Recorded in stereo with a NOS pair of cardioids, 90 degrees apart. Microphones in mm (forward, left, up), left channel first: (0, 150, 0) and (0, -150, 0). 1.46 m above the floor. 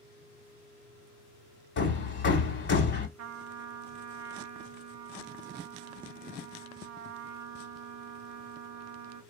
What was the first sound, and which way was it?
Hammering, 40° left.